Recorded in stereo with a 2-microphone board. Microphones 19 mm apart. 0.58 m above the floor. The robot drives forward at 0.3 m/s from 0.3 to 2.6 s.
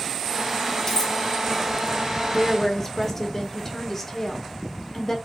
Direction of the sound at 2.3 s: 20° left (ahead or behind).